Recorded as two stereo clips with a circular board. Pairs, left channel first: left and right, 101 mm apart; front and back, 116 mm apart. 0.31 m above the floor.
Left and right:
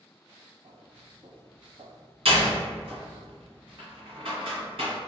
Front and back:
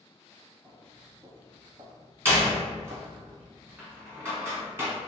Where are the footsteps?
115° right, 1.6 m; by 3.2 s straight behind, 0.5 m.